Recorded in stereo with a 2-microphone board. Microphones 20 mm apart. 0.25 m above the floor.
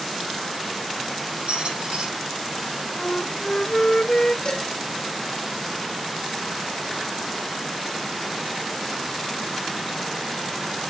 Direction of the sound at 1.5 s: 80° right.